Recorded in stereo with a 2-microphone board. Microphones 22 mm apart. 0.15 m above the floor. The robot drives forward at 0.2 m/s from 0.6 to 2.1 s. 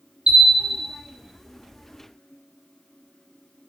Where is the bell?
55° right (ahead or behind), 1.7 m; by 0.8 s 60° right (ahead or behind), 1.7 m.